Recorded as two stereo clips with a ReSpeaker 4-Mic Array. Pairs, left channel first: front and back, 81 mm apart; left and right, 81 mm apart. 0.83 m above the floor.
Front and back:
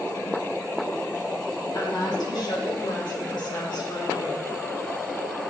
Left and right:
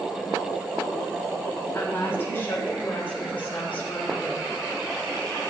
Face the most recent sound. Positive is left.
turn(degrees=20)